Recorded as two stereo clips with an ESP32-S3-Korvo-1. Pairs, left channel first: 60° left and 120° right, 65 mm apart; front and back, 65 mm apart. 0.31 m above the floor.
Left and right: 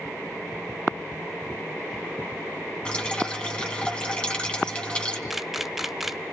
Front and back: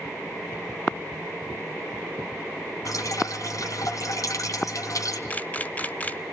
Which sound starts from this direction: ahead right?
A camera shutter, at 5.3 s.